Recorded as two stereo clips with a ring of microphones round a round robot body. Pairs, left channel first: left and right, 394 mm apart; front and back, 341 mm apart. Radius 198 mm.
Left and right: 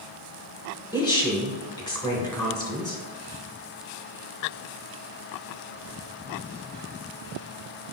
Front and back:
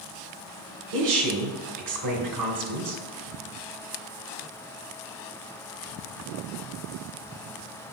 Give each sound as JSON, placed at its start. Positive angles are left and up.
{"t": 0.9, "sound": "a woman speaking", "azimuth_deg": 170, "distance_m": 1.8}